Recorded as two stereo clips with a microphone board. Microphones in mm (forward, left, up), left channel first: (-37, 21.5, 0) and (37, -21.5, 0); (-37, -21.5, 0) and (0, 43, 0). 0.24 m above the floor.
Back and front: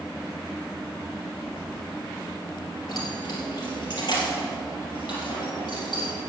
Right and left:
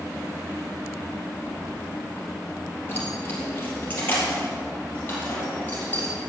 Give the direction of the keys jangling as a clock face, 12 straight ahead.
6 o'clock.